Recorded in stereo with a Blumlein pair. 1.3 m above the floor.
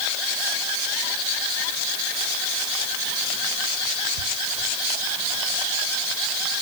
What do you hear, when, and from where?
Only background noise.